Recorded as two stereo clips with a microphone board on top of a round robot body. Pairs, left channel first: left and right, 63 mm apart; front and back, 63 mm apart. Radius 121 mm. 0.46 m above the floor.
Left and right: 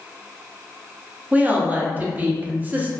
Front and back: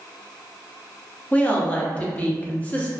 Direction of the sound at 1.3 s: 50° right.